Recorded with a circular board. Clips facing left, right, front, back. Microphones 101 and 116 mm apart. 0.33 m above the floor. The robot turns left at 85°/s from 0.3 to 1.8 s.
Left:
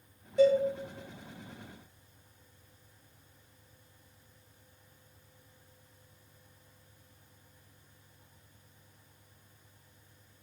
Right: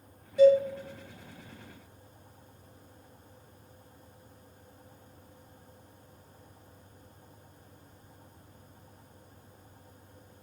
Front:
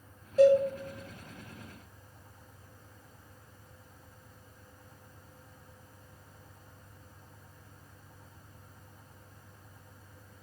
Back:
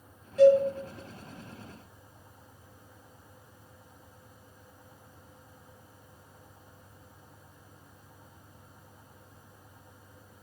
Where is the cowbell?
45° left, 1.2 m; by 0.6 s 25° left, 1.2 m.